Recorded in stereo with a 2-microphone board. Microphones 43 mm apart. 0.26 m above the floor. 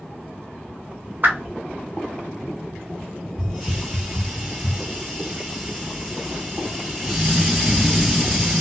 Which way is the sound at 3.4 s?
10° right (ahead or behind).